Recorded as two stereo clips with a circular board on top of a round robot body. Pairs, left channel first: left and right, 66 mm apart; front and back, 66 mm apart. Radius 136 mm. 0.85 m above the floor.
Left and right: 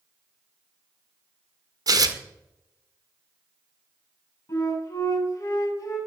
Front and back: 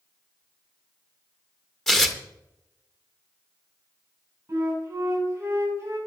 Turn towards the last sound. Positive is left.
turn(degrees=125)